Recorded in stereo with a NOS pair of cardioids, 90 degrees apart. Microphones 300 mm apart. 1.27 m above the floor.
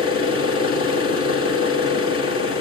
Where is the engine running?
45° left, 2.5 m.